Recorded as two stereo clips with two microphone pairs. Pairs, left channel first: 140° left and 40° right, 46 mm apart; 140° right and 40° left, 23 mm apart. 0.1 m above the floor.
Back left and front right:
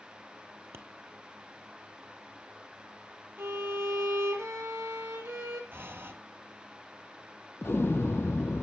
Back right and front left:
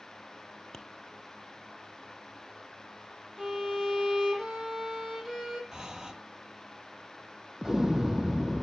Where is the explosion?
110° left, 0.6 m.